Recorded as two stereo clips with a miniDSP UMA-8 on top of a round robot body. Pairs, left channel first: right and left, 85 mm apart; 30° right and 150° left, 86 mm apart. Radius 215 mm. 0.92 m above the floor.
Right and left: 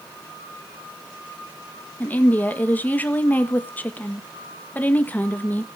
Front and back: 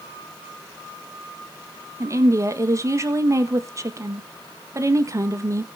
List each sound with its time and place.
2.0 s a woman speaking: 160° right, 1.9 m